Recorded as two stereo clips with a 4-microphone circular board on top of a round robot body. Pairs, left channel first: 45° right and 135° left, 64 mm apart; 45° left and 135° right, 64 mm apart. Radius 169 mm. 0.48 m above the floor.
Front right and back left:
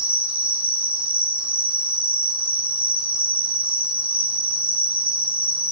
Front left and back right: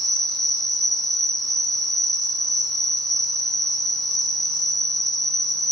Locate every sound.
0.0 s an insect: 125° left, 1.6 m